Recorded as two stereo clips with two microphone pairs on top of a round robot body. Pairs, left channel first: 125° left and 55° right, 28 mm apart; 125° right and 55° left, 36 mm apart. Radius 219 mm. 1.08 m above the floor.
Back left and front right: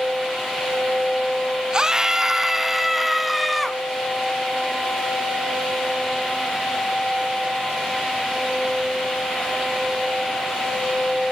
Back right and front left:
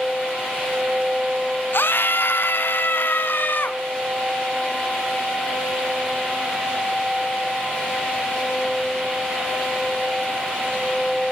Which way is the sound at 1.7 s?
115° right.